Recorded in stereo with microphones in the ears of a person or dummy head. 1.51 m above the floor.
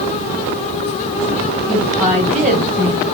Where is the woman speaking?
35° right (ahead or behind), 1.2 m.